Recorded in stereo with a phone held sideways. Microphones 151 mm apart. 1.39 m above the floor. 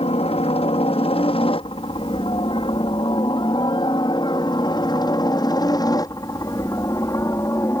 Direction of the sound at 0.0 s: 40° left (ahead or behind).